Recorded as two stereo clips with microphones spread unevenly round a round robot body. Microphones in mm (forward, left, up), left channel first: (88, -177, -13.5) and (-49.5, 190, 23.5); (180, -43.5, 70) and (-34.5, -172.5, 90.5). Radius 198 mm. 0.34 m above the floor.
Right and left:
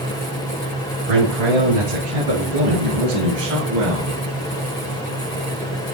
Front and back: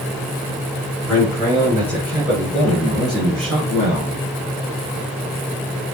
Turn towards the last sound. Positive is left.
turn(degrees=165)